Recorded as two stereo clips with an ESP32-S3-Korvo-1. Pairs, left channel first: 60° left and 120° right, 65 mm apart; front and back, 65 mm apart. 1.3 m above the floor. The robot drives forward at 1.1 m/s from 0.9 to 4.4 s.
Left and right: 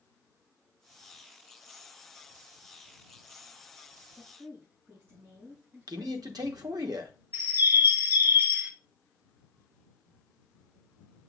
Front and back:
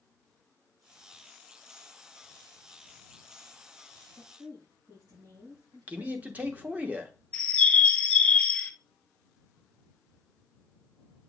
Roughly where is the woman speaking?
Behind.